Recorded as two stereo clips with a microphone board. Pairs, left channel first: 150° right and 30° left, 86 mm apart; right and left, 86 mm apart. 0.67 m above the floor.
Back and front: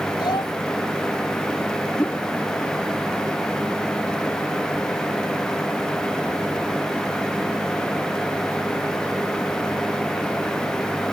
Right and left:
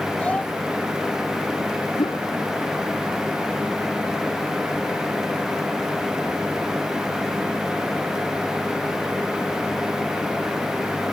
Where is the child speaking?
160° right.